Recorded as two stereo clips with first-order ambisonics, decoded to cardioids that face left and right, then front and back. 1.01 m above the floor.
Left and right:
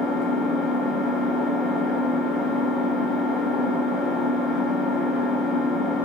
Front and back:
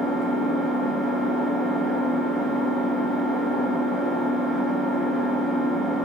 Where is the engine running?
90° left, 1.2 m.